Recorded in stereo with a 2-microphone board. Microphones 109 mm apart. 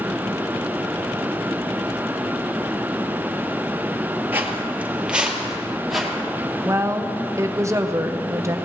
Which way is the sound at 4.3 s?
20° right (ahead or behind).